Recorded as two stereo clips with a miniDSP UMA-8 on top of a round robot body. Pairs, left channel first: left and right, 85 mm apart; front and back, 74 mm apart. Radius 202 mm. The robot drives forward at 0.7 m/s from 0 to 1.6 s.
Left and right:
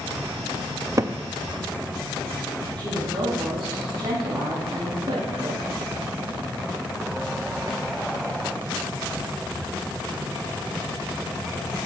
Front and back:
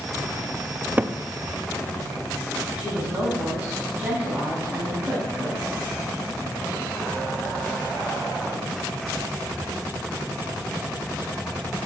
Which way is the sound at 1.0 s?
120° right.